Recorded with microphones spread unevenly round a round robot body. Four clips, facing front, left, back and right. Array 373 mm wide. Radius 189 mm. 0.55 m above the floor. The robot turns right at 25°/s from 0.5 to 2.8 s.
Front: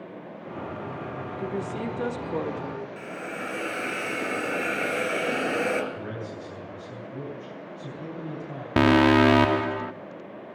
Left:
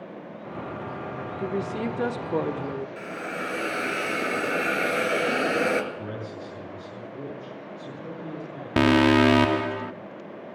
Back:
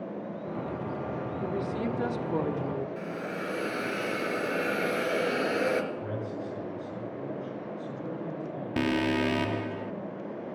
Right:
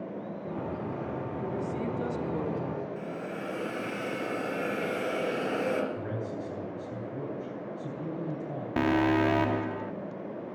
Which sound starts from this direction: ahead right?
A man speaking, at 5.9 s.